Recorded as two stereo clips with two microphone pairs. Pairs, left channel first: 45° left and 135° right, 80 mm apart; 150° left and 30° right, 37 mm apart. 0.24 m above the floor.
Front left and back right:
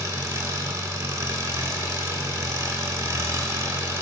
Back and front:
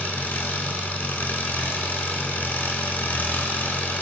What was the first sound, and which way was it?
An engine running, straight behind.